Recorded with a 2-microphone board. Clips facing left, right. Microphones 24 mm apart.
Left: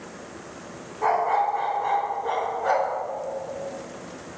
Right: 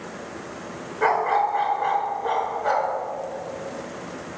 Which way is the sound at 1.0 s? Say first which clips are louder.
Right 1 dB; 55° right (ahead or behind).